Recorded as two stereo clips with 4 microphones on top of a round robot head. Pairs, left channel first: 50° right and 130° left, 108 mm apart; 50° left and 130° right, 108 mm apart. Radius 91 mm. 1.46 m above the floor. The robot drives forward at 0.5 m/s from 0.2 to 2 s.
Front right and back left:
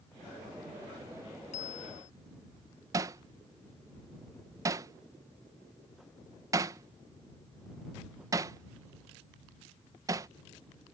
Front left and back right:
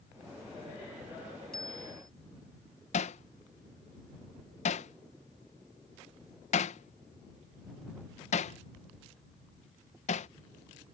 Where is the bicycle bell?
35° right.